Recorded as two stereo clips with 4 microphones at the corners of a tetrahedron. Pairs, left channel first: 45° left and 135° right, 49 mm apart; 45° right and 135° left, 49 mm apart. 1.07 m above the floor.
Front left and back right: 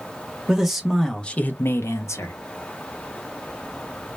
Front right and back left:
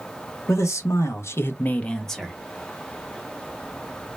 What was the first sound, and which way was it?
A man speaking, 55° right.